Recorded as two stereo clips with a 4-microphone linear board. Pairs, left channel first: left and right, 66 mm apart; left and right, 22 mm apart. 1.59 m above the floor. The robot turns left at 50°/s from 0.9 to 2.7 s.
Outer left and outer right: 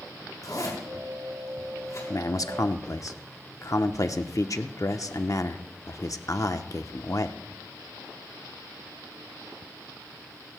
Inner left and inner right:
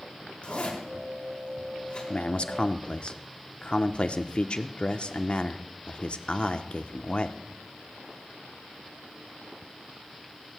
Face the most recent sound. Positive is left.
turn(degrees=75)